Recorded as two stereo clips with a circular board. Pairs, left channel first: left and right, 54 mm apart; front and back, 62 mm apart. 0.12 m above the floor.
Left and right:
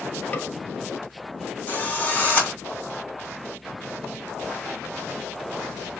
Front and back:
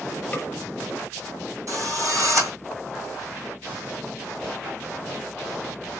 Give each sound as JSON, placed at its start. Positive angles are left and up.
{"t": 0.3, "sound": "a snare drum", "azimuth_deg": 60, "distance_m": 1.3}
{"t": 1.7, "sound": "a drill", "azimuth_deg": 150, "distance_m": 3.0}